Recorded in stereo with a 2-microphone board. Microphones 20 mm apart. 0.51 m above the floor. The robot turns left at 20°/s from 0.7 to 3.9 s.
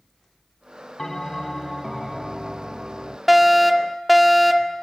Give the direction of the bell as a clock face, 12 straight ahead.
11 o'clock.